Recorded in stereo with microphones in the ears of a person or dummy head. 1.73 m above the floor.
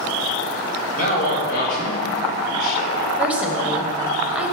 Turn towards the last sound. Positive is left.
turn(degrees=-5)  # may be behind; listen again after turning